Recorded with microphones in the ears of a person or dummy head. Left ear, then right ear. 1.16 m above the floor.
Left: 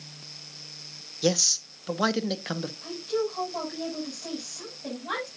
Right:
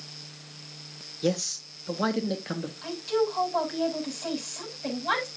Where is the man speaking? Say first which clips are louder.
Left 5 dB; 30° left (ahead or behind), 1.1 m.